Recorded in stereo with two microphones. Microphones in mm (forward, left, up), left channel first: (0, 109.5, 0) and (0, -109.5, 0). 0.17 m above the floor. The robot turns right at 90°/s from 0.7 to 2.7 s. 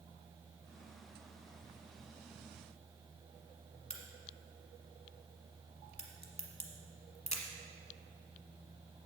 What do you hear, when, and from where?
3.9 s a crack: 30° left (ahead or behind), 1.3 m